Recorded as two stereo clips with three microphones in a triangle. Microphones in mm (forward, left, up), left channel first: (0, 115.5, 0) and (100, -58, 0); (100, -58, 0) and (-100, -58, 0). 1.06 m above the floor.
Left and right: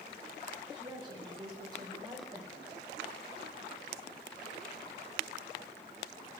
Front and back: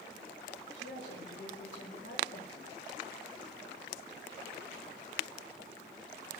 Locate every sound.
0.7 s a woman speaking: 5° left, 5.5 m; by 2.6 s 10° left, 4.5 m